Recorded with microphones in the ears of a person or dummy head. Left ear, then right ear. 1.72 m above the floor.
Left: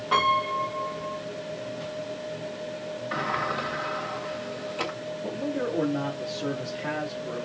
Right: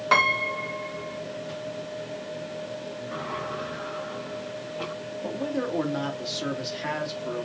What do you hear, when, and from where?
0.1 s a piano: 55° right (ahead or behind), 1.9 m
3.1 s a sliding door: 60° left (ahead or behind), 1.6 m
5.2 s a man speaking: 65° right (ahead or behind), 3 m